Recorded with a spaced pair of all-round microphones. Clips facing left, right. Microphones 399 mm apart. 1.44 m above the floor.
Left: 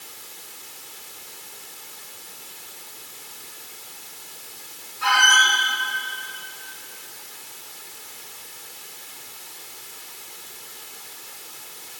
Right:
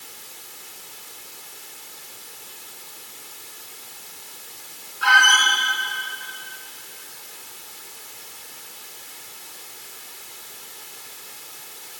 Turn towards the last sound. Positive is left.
turn(degrees=-25)  # may be behind; listen again after turning